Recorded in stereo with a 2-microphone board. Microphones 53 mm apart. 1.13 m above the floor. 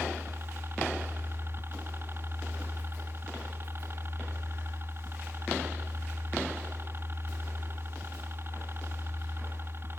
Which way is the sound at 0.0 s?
45° right (ahead or behind).